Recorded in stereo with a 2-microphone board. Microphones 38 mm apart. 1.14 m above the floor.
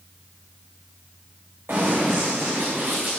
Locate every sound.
1.7 s running footsteps: 70° right (ahead or behind), 5 m; by 3.1 s 65° right (ahead or behind), 5.5 m